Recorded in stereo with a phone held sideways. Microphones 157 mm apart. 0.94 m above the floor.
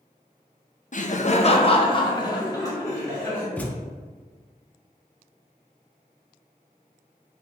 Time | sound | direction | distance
0.9 | laughter | 55° left (ahead or behind) | 0.5 m
3.6 | a thud | 10° left (ahead or behind) | 0.5 m